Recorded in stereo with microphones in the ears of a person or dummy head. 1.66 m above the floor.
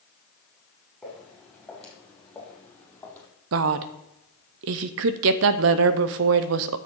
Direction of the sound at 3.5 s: 65° right (ahead or behind).